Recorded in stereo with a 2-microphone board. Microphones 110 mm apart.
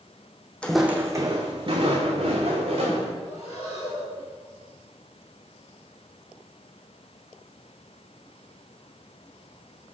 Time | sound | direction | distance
0.6 | footsteps | 10° left (ahead or behind) | 0.6 m
3.2 | breathing | 70° left (ahead or behind) | 2.5 m